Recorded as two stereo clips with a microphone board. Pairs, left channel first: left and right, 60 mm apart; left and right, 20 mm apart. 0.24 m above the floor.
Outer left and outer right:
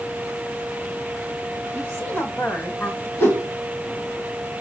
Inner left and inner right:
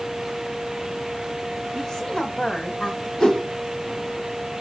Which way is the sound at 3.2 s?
40° left (ahead or behind).